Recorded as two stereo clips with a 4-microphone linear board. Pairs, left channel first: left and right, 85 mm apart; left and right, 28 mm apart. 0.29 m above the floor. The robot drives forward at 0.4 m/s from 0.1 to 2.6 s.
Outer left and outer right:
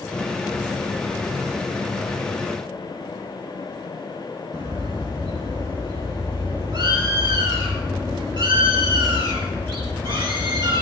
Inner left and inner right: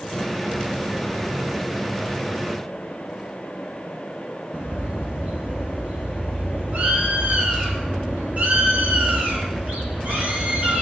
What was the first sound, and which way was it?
A bird, 65° right (ahead or behind).